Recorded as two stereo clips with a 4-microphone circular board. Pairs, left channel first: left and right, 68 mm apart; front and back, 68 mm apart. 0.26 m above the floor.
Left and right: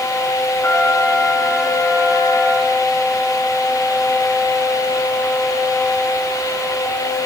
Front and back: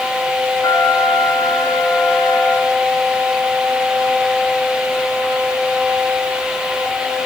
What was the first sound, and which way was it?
A trumpet, 35° left.